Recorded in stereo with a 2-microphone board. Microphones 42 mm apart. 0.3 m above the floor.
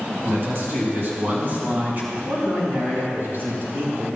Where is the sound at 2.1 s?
55° right (ahead or behind), 4 m.